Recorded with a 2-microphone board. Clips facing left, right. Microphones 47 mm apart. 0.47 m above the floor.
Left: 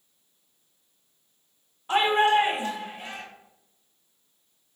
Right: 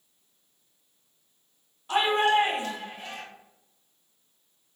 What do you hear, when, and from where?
1.9 s a shout: 25° left (ahead or behind), 1.0 m; by 3.2 s 15° left (ahead or behind), 1.7 m